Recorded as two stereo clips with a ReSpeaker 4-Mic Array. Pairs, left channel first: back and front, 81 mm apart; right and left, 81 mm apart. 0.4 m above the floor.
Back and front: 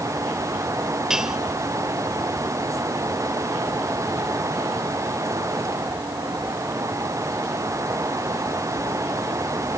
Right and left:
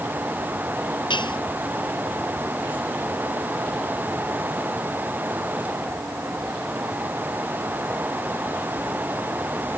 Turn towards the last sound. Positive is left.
turn(degrees=-85)